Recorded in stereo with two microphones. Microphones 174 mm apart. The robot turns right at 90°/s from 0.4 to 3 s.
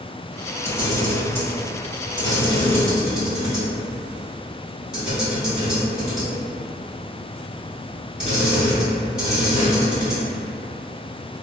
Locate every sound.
0.7 s a camera shutter: 20° right (ahead or behind), 1.4 m; by 10.2 s 5° right (ahead or behind), 1.4 m